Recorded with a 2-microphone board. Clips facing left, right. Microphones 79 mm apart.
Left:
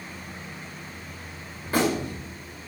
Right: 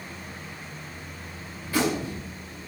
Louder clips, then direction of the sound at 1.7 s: Left 1 dB; 50° left (ahead or behind).